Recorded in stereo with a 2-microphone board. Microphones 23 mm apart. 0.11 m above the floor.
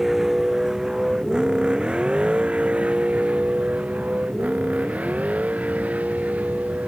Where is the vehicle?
15° right (ahead or behind); by 6.9 s 85° right.